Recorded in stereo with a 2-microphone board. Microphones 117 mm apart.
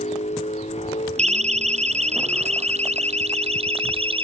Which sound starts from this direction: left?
A vehicle, at 0.0 s.